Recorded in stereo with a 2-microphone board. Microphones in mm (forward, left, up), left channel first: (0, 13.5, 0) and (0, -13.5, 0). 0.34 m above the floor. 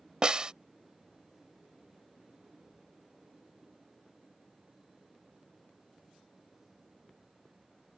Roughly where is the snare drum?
Right.